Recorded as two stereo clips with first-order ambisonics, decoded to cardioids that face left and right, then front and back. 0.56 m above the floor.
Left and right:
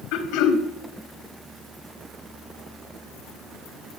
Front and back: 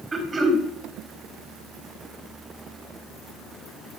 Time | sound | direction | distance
0.1 | throat clearing | 110° left | 1.5 m